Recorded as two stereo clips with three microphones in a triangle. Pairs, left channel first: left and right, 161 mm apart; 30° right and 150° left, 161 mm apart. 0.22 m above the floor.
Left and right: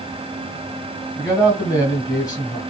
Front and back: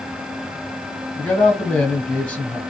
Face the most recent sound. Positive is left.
turn(degrees=50)